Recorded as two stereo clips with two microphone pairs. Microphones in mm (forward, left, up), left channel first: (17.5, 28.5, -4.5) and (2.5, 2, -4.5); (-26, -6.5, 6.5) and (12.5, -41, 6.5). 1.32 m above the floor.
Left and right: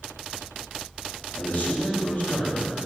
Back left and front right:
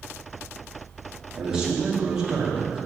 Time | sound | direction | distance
1.4 | a man speaking | 35° left | 2.5 m